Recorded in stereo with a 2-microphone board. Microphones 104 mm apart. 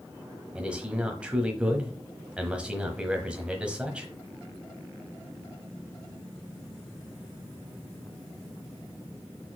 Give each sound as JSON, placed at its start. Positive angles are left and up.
{"t": 0.6, "sound": "a man speaking", "side_deg": -10, "distance_m": 1.1}